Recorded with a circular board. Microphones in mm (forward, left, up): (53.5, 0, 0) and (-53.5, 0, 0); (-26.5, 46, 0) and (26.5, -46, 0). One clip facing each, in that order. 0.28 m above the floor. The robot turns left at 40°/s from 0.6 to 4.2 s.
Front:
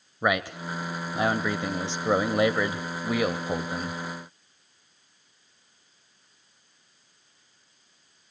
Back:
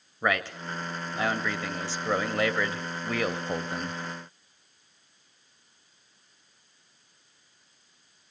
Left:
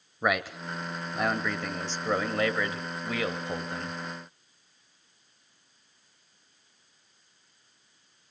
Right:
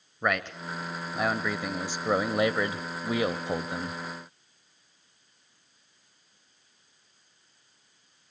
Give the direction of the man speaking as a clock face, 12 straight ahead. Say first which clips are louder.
Front 2 dB, left 1 dB; 10 o'clock.